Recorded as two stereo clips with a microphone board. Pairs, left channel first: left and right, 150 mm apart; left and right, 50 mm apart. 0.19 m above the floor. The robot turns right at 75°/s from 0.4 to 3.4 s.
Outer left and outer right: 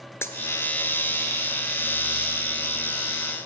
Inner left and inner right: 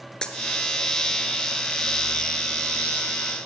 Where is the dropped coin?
15° left (ahead or behind), 0.8 m.